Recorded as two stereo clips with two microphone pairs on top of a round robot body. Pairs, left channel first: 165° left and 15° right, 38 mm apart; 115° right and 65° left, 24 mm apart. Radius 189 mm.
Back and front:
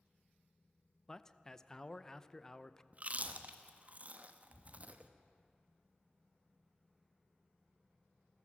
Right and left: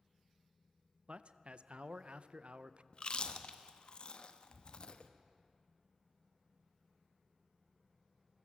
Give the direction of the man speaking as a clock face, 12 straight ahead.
9 o'clock.